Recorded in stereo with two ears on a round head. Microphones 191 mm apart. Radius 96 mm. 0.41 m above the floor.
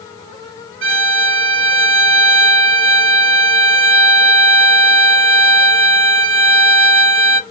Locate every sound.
0.8 s a violin: 65° right (ahead or behind), 0.5 m